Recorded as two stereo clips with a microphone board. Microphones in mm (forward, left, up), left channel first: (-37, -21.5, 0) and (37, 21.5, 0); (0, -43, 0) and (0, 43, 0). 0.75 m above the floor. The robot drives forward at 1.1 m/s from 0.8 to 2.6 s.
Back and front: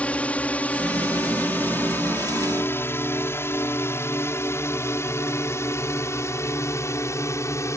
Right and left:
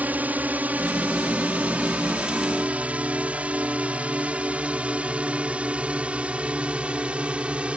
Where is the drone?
145° left; by 7.8 s 165° left.